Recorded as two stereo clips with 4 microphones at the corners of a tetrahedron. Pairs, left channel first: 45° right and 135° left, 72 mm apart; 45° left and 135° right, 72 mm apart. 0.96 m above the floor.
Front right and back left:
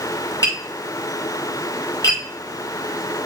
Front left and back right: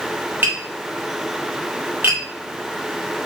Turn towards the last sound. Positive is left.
turn(degrees=-75)